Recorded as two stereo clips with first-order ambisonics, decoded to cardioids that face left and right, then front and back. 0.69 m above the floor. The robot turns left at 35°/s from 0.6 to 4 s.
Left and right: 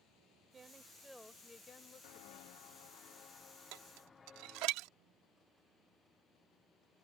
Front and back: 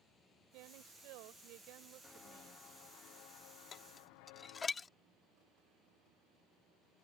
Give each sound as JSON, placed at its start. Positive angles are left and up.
{"t": 0.5, "sound": "a woman speaking", "azimuth_deg": -160}
{"t": 2.0, "sound": "footsteps", "azimuth_deg": 70}
{"t": 3.7, "sound": "dishes clattering", "azimuth_deg": -65}